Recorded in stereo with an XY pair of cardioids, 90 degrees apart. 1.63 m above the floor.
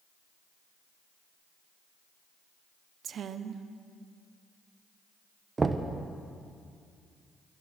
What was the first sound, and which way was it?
A woman speaking, 65° right.